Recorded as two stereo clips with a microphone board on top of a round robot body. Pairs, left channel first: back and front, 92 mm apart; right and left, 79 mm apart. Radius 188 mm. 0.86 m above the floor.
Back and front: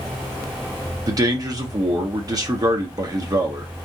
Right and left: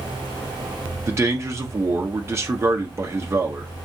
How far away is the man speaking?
About 1.4 m.